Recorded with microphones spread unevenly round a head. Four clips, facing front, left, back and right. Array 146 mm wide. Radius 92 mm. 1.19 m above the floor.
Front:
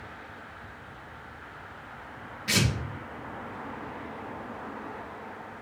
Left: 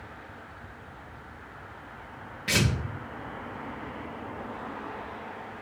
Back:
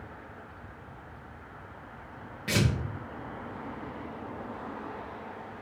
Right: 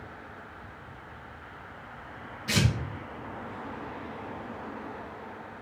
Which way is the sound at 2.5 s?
165° left.